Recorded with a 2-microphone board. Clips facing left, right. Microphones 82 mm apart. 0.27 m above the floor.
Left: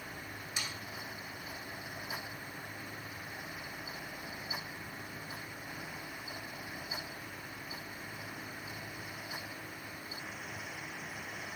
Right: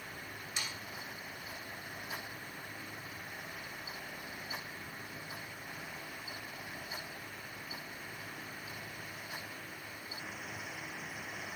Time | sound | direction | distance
0.6 | sawing | 15° left (ahead or behind) | 2 m